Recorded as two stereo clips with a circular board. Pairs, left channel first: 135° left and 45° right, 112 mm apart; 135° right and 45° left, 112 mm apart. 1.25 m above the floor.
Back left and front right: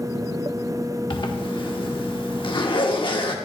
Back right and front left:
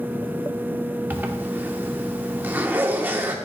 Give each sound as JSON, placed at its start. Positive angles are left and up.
{"t": 1.1, "sound": "a zipper", "azimuth_deg": 110, "distance_m": 1.1}